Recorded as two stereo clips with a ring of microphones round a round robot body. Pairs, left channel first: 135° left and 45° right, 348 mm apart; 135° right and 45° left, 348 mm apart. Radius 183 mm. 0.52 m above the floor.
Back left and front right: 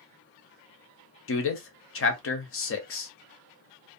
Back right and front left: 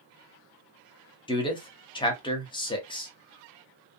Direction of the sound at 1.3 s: 155° left.